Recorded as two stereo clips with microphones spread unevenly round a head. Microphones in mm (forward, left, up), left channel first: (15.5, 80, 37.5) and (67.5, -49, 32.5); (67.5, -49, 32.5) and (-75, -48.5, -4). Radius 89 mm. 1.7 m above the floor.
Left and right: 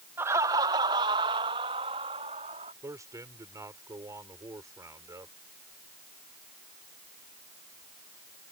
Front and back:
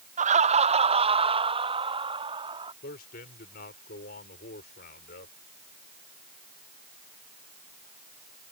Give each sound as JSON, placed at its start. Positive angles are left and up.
{"t": 0.2, "sound": "laughter", "azimuth_deg": -145}
{"t": 2.8, "sound": "a man speaking", "azimuth_deg": 0}